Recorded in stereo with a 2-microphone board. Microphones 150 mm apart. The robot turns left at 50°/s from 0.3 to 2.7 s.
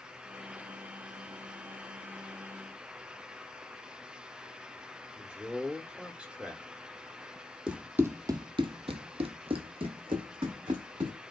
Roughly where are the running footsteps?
Centre.